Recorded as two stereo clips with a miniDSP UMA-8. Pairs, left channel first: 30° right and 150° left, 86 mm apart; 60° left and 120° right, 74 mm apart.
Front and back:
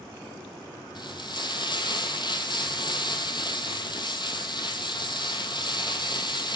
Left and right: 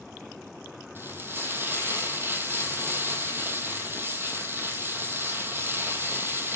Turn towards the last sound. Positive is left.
turn(degrees=-60)